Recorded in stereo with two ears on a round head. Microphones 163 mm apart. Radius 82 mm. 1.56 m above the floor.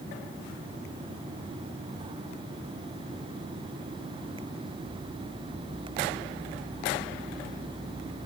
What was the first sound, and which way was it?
Only background noise.